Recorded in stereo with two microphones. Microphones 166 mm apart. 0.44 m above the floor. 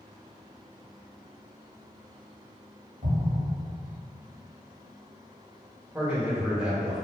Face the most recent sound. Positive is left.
turn(degrees=-5)  # may be behind; listen again after turning